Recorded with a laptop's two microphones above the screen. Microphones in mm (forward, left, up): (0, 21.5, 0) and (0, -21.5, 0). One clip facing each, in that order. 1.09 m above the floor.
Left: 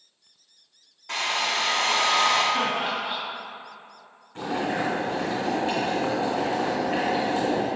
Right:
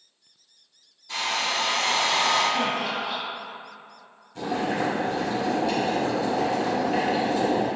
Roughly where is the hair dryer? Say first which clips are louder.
Left 1 dB; left.